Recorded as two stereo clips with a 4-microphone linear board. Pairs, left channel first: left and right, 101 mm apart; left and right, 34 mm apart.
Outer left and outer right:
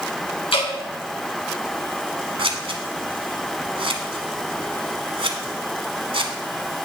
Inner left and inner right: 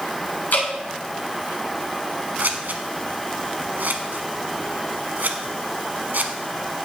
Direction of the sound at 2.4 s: 65° right (ahead or behind).